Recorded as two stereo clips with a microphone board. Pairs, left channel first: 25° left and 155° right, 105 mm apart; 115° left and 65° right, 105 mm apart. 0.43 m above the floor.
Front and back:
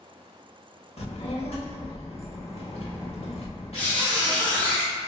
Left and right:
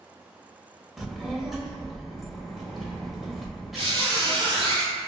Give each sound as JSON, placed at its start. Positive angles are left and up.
{"t": 1.0, "sound": "a child speaking", "azimuth_deg": 20, "distance_m": 0.8}
{"t": 3.8, "sound": "a squeak", "azimuth_deg": -55, "distance_m": 1.0}